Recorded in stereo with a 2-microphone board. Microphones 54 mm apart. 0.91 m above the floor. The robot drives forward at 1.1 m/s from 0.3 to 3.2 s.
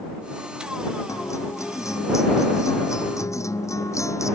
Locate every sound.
1.1 s a guitar: 85° left